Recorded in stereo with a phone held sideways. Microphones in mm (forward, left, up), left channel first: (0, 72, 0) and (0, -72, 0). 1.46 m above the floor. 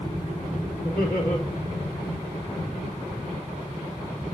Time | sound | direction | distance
0.8 | laughter | 90° left | 4.5 m